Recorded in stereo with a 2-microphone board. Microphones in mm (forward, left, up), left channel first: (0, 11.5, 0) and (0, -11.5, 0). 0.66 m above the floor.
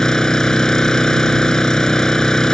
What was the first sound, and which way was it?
An engine running, 25° left (ahead or behind).